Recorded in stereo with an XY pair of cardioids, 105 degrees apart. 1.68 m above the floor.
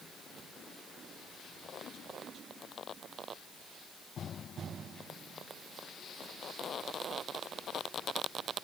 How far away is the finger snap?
No finger snap in this recording.